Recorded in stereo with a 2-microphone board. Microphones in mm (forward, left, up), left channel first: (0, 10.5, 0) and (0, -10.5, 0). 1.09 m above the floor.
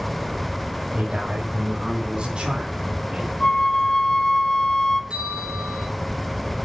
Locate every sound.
0.9 s a man speaking: 60° right (ahead or behind), 6 m; by 3.3 s 80° right, 4 m
3.4 s a flute: 35° left (ahead or behind), 1.2 m
5.1 s a bell: 75° right (ahead or behind), 5 m